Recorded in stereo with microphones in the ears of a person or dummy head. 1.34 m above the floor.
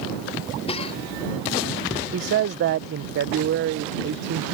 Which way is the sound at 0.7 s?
35° left (ahead or behind).